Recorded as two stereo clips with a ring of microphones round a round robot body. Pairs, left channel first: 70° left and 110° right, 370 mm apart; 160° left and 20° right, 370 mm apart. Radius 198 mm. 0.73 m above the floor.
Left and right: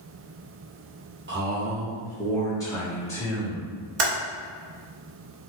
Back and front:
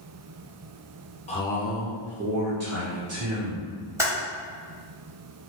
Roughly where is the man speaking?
Behind right.